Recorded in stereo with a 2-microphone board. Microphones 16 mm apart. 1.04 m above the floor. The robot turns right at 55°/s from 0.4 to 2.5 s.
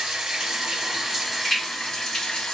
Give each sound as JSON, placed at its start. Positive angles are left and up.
{"t": 0.0, "sound": "running water", "azimuth_deg": -60, "distance_m": 1.9}